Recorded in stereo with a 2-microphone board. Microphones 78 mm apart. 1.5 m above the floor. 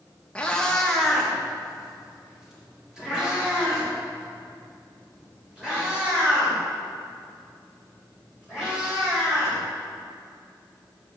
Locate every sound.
0.3 s a cat meowing: 15° left (ahead or behind), 0.7 m; by 9.6 s 15° right (ahead or behind), 5.5 m